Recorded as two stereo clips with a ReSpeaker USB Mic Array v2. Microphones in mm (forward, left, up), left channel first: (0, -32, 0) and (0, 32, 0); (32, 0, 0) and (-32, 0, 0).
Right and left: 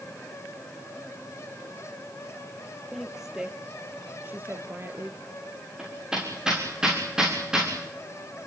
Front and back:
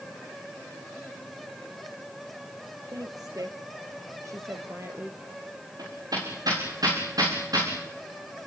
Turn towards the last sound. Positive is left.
turn(degrees=165)